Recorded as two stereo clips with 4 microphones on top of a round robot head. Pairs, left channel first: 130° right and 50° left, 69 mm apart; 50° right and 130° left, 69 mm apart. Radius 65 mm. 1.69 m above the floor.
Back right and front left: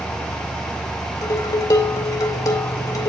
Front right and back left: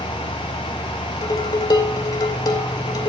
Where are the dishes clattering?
85° right, 2.5 m.